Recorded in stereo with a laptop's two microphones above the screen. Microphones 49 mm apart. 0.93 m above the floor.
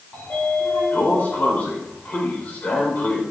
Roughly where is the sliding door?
Left.